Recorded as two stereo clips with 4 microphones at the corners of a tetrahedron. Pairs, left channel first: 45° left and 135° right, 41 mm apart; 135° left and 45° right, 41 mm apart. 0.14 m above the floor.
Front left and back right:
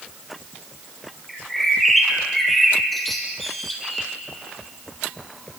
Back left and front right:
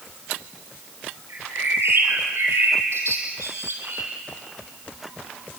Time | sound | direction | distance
1.3 | a bird | 45° right | 3.5 m